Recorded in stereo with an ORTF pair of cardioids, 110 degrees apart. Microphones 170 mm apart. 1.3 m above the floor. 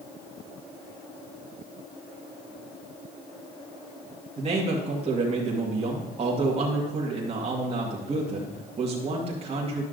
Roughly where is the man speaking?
Ahead right.